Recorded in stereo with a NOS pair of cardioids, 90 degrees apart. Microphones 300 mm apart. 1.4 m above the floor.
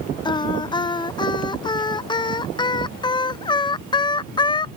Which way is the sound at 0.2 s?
15° left.